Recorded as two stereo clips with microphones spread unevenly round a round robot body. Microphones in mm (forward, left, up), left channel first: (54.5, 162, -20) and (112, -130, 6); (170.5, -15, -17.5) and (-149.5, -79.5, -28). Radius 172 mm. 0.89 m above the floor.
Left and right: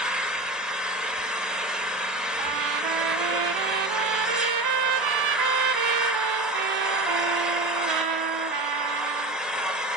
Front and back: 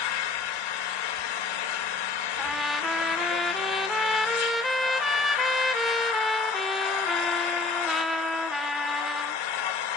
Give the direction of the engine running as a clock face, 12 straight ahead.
12 o'clock.